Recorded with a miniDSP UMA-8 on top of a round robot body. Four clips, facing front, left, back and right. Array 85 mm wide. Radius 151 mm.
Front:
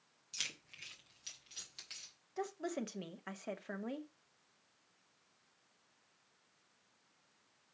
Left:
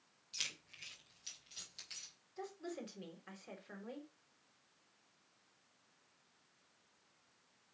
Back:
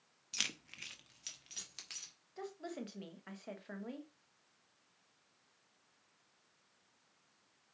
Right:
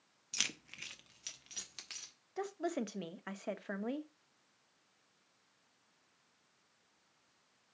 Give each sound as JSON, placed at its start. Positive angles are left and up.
{"t": 0.3, "sound": "keys jangling", "azimuth_deg": -130, "distance_m": 0.7}
{"t": 2.4, "sound": "a woman speaking", "azimuth_deg": -70, "distance_m": 1.1}